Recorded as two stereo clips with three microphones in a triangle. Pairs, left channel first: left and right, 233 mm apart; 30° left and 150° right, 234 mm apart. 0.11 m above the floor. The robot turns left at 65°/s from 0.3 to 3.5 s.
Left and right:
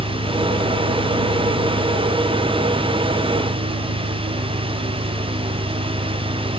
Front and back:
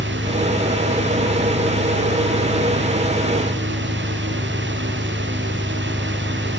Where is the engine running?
145° left; by 6.6 s 65° right.